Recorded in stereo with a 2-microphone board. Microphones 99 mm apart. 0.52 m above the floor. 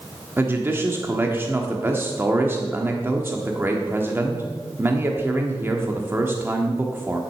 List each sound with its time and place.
0.4 s a man speaking: 20° right (ahead or behind), 1.2 m